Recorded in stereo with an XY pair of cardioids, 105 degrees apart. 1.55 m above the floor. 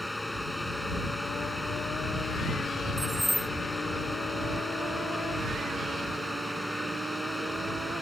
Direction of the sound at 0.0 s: 5° left.